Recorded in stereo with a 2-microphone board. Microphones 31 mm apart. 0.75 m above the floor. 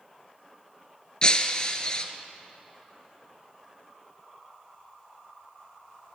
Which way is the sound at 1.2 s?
30° left (ahead or behind).